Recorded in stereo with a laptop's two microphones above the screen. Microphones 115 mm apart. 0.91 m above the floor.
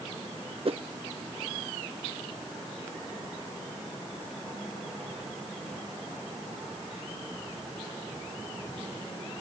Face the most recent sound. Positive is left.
turn(degrees=-55)  # may be behind; listen again after turning